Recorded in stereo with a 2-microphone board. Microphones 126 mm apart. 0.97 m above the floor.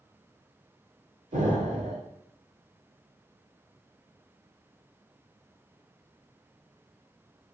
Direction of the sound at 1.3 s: 70° right (ahead or behind).